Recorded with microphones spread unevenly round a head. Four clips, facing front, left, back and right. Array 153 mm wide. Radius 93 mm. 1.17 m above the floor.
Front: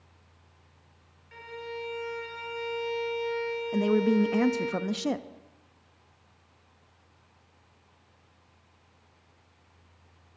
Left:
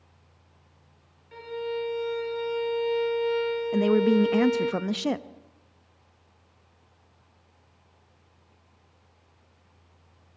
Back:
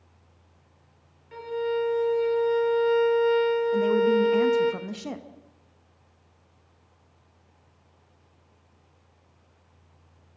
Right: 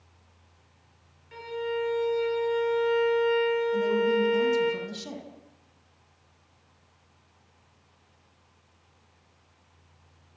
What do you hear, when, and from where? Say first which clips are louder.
1.3 s a violin: right 1 dB, back 12 dB; 165° left, 2.5 m
3.7 s a woman speaking: left 8 dB, even; 50° left, 1.3 m